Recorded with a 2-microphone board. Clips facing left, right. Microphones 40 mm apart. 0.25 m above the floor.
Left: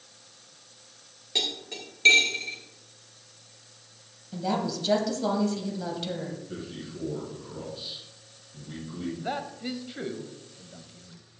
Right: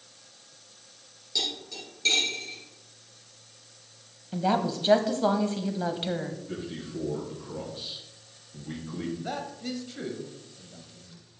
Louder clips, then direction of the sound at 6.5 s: Right 2 dB; 55° right (ahead or behind).